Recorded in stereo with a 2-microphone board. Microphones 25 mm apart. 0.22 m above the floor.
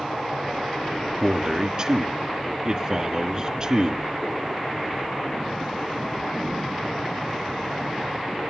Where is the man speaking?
30° right (ahead or behind), 2.5 m.